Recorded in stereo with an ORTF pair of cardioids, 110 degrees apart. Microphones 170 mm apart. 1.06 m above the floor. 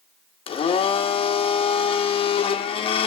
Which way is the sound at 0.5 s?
35° left.